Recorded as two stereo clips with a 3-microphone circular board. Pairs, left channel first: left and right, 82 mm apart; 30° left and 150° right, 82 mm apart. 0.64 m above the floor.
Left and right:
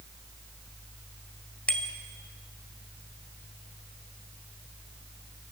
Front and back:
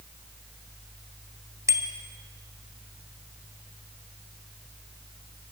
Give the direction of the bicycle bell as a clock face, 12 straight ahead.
7 o'clock.